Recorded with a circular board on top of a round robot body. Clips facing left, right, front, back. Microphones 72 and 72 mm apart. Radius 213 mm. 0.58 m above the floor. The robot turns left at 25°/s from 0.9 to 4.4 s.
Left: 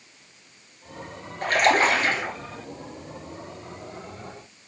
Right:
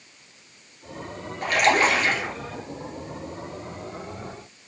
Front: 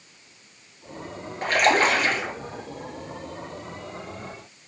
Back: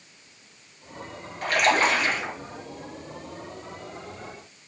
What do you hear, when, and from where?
1.4 s a splash: 55° left, 1.9 m; by 2.3 s 30° left, 1.9 m